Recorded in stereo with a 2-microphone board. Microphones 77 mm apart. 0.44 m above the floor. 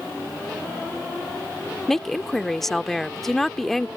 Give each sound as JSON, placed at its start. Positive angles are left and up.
{"t": 1.9, "sound": "a woman speaking", "side_deg": 5}